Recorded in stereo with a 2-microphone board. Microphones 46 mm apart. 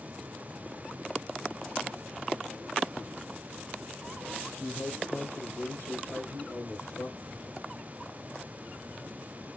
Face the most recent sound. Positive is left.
turn(degrees=80)